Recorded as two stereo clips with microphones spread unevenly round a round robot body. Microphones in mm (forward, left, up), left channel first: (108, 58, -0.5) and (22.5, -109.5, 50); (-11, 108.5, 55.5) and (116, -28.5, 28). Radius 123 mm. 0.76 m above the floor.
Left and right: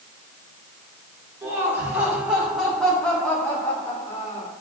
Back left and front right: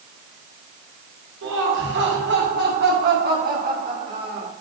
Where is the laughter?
40° right, 4 m; by 4.5 s 10° left, 2.5 m.